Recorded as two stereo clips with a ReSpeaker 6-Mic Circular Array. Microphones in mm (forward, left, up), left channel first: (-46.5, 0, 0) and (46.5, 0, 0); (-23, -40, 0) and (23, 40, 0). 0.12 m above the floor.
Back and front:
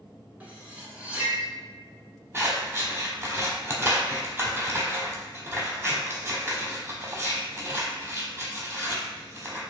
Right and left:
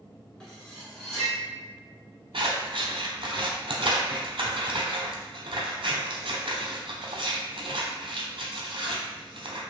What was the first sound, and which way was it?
Cutlery clinking, 45° right.